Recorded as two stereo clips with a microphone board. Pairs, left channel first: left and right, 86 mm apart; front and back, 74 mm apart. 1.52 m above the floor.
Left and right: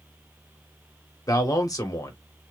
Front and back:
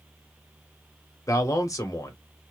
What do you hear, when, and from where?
1.3 s a man speaking: 45° left, 1.1 m